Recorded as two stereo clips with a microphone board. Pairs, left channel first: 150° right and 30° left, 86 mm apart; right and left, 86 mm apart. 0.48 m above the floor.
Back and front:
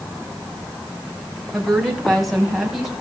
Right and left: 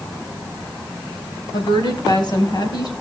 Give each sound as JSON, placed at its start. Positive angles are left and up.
{"t": 1.5, "sound": "a woman speaking", "azimuth_deg": -65, "distance_m": 4.5}